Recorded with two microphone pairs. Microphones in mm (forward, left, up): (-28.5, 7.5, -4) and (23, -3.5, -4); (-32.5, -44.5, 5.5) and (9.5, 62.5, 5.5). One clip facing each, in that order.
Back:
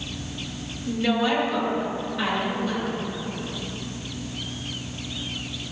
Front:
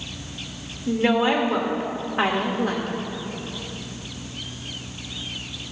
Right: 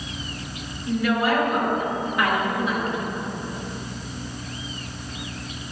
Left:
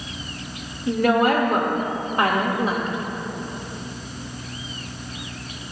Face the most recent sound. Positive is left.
turn(degrees=10)